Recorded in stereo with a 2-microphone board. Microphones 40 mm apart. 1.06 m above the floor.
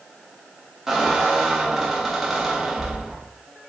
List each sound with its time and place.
0.9 s a squeak: 5° right (ahead or behind), 0.5 m